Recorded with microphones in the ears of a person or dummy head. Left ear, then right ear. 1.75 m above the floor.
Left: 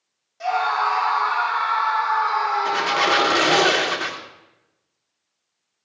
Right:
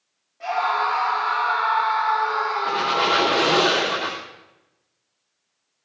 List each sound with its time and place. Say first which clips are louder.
0.4 s a scream: left 1 dB; 85° left, 6 m; by 3.6 s 55° left (ahead or behind), 7.5 m
2.6 s a squeak: right 1 dB; 55° left (ahead or behind), 2.5 m